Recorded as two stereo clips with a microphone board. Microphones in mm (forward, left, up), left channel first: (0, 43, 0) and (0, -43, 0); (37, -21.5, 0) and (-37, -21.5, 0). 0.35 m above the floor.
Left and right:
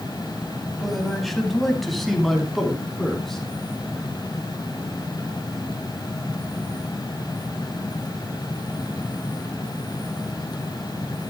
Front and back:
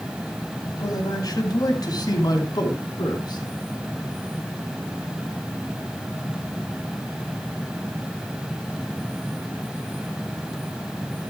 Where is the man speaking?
Straight ahead, 2.5 m; by 3.4 s 5° left, 4.5 m.